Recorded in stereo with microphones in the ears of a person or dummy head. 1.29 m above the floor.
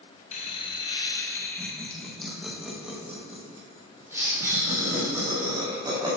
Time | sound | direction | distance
0.3 | laughter | 40° left (ahead or behind) | 1.2 m